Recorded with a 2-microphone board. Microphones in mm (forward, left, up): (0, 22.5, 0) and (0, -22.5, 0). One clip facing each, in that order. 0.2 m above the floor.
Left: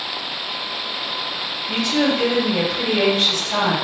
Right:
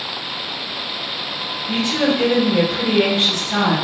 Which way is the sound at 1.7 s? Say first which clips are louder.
Right 1 dB; 30° right (ahead or behind).